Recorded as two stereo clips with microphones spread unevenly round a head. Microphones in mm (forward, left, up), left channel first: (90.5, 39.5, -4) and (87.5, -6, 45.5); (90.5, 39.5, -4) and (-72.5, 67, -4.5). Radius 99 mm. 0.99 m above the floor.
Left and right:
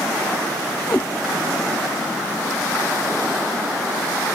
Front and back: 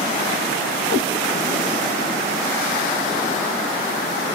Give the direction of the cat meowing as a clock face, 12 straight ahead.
12 o'clock.